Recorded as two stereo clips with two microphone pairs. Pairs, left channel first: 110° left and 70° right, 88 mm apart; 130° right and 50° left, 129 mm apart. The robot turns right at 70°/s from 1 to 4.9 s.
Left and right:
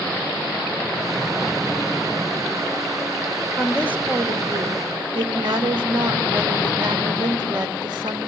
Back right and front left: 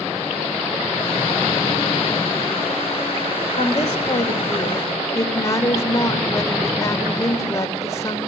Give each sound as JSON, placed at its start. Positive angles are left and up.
{"t": 3.6, "sound": "a woman speaking", "azimuth_deg": -160, "distance_m": 2.5}